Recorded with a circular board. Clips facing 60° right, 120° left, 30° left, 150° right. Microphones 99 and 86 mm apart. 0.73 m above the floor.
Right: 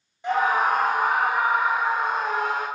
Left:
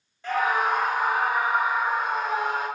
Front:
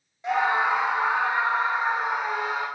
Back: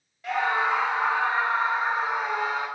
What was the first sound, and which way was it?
A scream, 10° right.